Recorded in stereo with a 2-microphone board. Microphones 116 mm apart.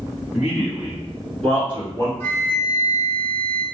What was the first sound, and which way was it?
A man speaking, 10° right (ahead or behind).